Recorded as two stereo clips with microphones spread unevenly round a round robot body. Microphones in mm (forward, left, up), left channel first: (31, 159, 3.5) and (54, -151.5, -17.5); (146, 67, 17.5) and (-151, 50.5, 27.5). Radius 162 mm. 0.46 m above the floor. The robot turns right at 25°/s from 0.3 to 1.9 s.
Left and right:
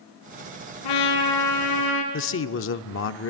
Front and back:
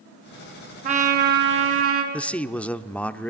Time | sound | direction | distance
0.8 | a trumpet | 115° left | 4.5 m
2.1 | a man speaking | 85° left | 0.8 m